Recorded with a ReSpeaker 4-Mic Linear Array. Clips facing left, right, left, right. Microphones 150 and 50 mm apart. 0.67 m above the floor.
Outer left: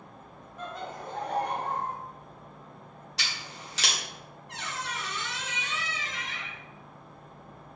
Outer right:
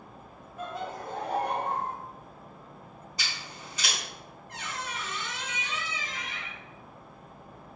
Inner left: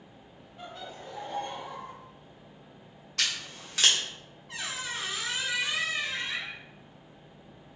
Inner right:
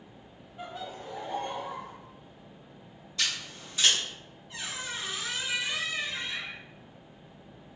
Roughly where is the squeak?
Left.